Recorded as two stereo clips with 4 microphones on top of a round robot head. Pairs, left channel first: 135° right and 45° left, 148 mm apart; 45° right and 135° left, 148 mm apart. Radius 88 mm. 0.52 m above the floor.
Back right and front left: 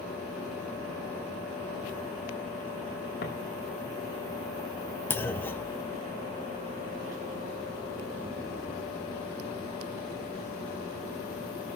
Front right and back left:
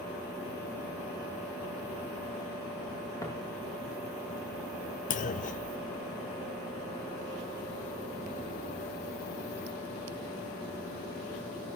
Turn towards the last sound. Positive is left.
turn(degrees=-60)